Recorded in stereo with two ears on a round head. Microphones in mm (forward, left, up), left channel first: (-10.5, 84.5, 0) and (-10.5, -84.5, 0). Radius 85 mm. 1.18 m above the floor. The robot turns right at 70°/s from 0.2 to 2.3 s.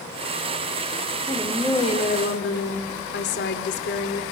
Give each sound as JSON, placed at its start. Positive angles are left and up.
{"t": 1.3, "sound": "a woman speaking", "azimuth_deg": -15, "distance_m": 4.5}